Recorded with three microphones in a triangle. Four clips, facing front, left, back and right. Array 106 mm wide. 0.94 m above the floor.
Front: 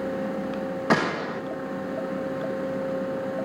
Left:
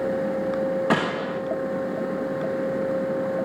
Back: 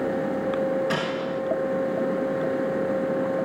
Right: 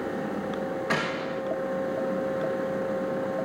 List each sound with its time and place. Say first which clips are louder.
0.9 s a gunshot: left 5 dB, front 2 dB; 40° left, 1.0 m